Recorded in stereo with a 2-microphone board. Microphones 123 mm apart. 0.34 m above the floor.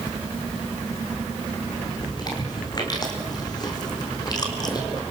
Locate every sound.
2.0 s chewing: 35° left (ahead or behind), 3.5 m